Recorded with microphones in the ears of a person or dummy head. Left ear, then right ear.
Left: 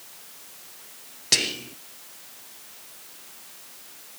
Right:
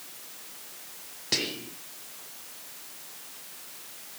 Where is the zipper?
I don't hear a zipper.